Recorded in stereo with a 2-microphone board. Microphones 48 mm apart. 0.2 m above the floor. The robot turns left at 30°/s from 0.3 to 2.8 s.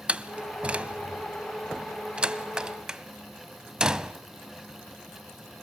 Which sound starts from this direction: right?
A door slam, at 0.1 s.